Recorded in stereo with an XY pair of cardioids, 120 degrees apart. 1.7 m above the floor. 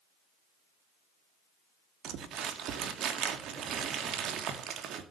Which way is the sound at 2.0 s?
65° right.